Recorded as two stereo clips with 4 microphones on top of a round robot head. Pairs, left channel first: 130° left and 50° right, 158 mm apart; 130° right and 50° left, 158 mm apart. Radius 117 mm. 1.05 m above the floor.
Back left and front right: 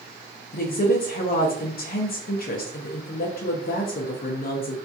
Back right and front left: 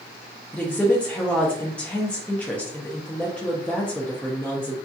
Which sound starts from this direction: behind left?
A woman speaking, at 0.5 s.